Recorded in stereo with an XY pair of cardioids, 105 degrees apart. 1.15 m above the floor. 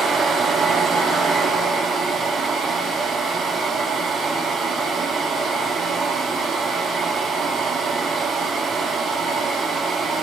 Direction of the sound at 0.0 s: 50° right.